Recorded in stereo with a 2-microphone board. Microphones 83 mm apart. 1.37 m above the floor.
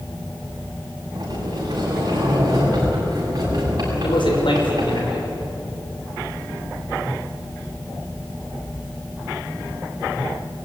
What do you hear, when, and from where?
1.1 s a sliding door: 50° right (ahead or behind), 7.5 m
4.0 s a man speaking: 70° left (ahead or behind), 5.5 m